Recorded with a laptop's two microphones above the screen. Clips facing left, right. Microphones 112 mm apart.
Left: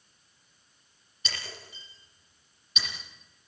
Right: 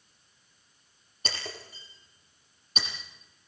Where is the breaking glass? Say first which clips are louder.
Right 3 dB; 45° right (ahead or behind), 8.5 m.